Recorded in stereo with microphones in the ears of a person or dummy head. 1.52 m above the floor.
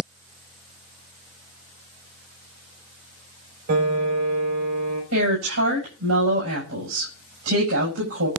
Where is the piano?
65° right (ahead or behind), 5.5 m.